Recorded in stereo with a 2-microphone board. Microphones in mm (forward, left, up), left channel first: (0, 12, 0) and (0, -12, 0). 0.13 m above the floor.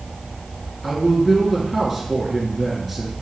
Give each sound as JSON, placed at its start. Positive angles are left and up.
{"t": 0.8, "sound": "a man speaking", "side_deg": 0, "distance_m": 2.0}